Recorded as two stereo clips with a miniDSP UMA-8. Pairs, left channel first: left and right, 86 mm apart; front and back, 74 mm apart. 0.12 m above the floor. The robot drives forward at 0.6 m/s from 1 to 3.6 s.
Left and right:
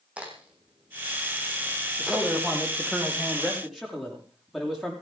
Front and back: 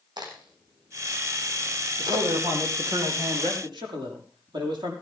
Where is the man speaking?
Straight behind, 5 m.